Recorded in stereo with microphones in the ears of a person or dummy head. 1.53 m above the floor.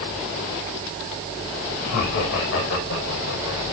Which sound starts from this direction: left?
Laughter, at 1.8 s.